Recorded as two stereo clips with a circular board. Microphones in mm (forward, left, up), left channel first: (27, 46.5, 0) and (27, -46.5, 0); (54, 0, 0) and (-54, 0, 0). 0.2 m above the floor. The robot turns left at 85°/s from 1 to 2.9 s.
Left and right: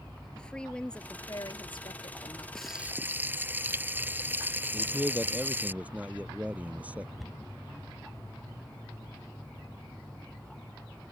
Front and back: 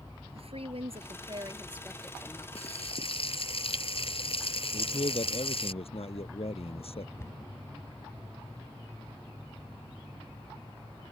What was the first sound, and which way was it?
A woman speaking, 170° left.